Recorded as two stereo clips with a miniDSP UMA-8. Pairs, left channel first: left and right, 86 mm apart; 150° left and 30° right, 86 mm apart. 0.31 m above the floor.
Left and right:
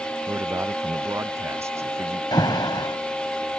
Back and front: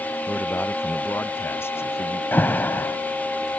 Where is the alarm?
90° left.